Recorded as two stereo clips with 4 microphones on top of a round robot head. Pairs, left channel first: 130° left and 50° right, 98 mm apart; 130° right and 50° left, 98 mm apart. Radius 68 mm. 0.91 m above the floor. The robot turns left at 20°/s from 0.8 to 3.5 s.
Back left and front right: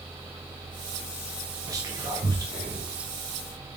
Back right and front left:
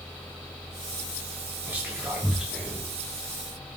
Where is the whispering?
15° right, 1.2 m; by 2.9 s 40° right, 1.2 m.